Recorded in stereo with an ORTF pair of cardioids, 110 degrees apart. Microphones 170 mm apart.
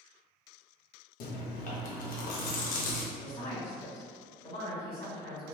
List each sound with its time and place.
1.2 s chewing: 60° left, 0.7 m
3.2 s a woman speaking: 35° left, 1.7 m